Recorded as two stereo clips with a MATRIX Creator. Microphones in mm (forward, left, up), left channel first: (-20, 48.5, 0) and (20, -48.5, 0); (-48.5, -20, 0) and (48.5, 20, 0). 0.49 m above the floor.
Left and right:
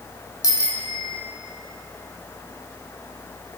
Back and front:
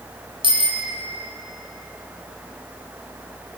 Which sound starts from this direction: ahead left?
A bicycle bell, at 0.4 s.